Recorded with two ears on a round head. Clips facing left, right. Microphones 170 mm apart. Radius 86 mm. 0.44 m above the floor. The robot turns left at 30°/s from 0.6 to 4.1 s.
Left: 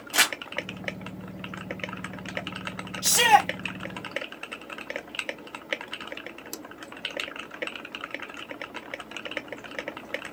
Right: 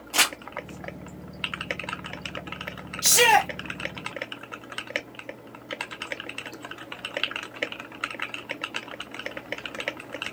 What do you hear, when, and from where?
0.1 s crumpling: 15° left (ahead or behind), 1.3 m
3.0 s a shout: 20° right (ahead or behind), 1.2 m